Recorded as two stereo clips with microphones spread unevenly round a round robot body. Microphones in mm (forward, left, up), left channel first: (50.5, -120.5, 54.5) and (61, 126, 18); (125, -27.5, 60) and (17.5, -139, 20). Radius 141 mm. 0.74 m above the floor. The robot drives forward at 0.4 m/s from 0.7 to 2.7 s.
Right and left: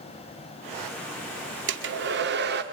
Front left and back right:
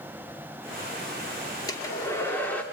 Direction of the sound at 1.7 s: 125° left.